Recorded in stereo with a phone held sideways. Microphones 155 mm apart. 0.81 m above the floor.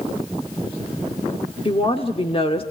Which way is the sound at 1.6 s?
35° left (ahead or behind).